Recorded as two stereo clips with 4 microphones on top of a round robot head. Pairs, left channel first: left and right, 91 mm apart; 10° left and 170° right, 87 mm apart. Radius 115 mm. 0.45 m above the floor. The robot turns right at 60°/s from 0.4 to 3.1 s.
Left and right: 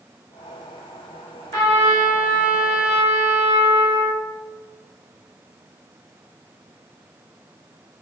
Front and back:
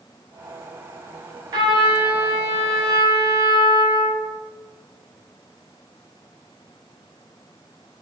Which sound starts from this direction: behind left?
A trumpet, at 1.5 s.